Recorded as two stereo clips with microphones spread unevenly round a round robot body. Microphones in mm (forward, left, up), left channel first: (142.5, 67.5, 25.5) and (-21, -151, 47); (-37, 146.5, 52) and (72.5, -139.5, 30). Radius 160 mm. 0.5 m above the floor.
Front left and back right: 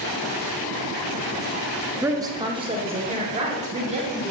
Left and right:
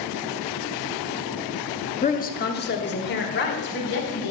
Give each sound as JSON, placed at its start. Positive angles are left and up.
{"t": 2.0, "sound": "a woman speaking", "azimuth_deg": 155, "distance_m": 0.8}